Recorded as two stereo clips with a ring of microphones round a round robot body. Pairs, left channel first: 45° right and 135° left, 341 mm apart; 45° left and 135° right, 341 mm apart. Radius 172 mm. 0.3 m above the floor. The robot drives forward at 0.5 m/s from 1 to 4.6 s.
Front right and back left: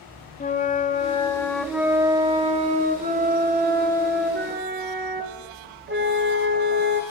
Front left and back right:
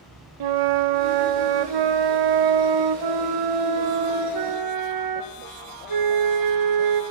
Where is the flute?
115° right, 0.7 m; by 7.0 s 165° right, 2 m.